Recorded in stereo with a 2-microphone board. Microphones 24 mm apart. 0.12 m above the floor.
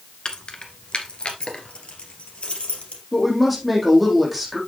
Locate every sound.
0.2 s keys jangling: 35° left (ahead or behind), 1.3 m; by 3.0 s 55° left (ahead or behind), 2.5 m
3.1 s a woman speaking: centre (ahead or behind), 5 m